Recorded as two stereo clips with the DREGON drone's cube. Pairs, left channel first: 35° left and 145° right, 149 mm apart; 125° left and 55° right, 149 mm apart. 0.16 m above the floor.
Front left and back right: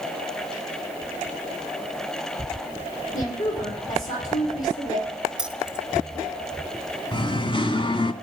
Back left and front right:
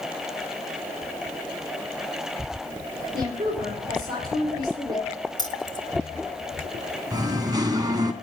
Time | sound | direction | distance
3.1 | a woman speaking | 5° left | 7.5 m
5.4 | keys jangling | 135° left | 0.9 m
7.1 | singing | 5° right | 1.0 m